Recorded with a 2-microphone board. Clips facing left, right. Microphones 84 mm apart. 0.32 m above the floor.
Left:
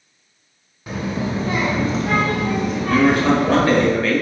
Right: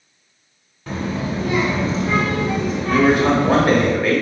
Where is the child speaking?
5° left (ahead or behind), 0.7 m; by 3.9 s 75° left (ahead or behind), 1.9 m.